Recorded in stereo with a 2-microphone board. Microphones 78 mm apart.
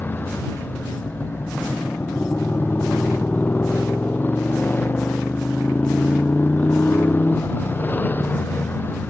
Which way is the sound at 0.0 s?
25° left (ahead or behind).